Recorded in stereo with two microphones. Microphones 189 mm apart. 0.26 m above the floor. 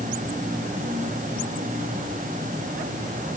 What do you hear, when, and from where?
Only background noise.